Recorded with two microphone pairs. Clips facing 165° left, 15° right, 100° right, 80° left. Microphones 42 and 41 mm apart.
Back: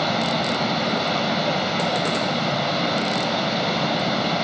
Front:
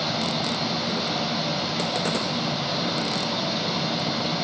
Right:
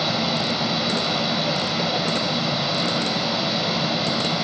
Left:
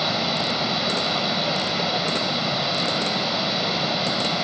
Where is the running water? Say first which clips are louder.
Back 4 dB, right 1 dB; 160° left, 0.9 m.